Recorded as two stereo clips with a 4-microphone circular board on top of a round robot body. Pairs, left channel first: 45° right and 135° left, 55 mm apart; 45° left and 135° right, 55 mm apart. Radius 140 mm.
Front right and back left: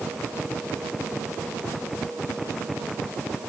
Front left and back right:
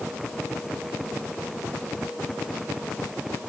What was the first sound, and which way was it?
Only background noise.